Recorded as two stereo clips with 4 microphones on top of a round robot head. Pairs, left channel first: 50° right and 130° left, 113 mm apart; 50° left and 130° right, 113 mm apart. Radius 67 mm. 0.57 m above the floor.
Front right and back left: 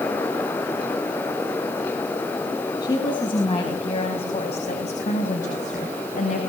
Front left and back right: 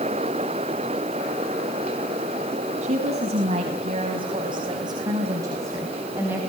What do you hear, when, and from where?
2.8 s a woman speaking: 105° right, 5 m; by 6.4 s 55° right, 5 m